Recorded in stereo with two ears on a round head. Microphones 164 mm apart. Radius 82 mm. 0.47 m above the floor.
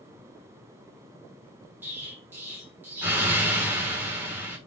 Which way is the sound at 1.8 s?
10° right (ahead or behind).